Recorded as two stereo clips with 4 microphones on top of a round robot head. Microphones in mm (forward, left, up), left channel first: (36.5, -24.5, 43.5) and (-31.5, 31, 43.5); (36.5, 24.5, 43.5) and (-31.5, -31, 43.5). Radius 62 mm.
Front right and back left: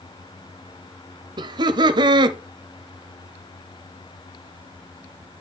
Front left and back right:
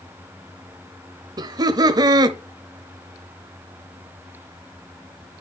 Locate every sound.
1.4 s laughter: 175° left, 0.7 m